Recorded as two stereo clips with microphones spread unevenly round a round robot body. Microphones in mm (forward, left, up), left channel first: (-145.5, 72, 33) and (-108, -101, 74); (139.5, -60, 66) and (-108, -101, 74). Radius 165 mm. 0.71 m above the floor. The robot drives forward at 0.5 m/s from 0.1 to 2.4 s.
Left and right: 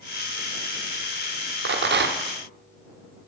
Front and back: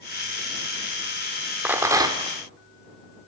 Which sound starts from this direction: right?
A rattle, at 1.6 s.